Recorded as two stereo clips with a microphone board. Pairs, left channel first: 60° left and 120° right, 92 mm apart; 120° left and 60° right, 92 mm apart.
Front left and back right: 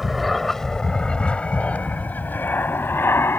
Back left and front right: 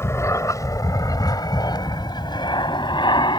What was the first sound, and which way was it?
An aircraft, 150° left.